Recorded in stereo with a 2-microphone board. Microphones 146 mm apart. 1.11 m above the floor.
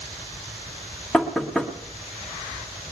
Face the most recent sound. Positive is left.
turn(degrees=5)  # may be behind; listen again after turning